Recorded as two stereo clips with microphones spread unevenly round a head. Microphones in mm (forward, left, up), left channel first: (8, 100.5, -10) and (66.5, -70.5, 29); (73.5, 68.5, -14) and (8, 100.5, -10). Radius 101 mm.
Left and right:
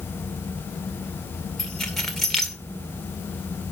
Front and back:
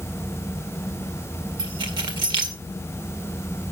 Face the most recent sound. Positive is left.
turn(degrees=-160)